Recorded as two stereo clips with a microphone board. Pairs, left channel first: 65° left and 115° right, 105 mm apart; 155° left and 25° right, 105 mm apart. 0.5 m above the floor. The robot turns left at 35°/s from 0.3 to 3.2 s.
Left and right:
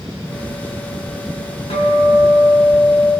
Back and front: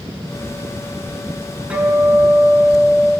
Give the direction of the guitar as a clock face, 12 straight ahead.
10 o'clock.